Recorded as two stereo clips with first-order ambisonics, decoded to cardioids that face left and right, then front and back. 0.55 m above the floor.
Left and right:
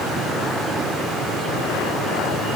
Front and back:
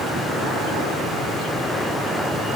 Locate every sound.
Only background noise.